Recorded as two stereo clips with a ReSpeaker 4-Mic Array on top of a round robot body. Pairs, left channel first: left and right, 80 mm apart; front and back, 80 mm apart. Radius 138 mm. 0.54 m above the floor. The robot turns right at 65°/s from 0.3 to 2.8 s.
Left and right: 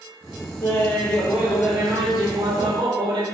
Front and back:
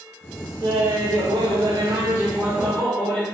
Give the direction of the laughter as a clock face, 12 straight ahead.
7 o'clock.